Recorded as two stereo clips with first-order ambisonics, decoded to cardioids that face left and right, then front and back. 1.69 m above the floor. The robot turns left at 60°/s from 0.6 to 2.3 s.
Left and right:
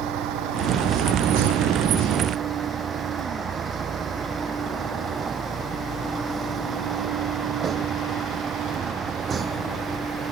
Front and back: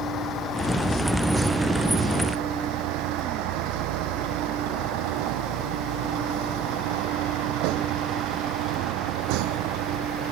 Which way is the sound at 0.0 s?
55° right.